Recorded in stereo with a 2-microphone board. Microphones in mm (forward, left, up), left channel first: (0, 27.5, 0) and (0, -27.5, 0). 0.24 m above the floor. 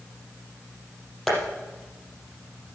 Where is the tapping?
5° left (ahead or behind), 5 m.